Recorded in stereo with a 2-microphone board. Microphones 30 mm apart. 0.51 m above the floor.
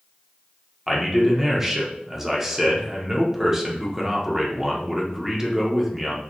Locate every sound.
0.9 s a man speaking: 15° right (ahead or behind), 1.0 m